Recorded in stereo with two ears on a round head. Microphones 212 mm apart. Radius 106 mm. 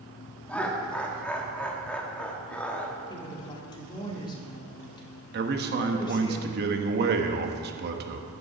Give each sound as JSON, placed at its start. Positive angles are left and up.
{"t": 0.5, "sound": "laughter", "side_deg": 5, "distance_m": 1.4}
{"t": 3.1, "sound": "a woman speaking", "side_deg": 20, "distance_m": 2.0}
{"t": 5.3, "sound": "a man speaking", "side_deg": -45, "distance_m": 1.1}